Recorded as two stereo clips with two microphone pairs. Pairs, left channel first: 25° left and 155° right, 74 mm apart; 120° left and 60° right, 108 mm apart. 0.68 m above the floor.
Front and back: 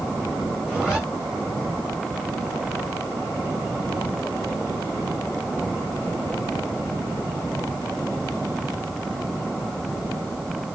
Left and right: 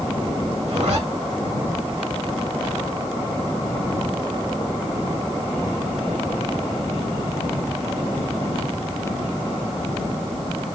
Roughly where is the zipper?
Right.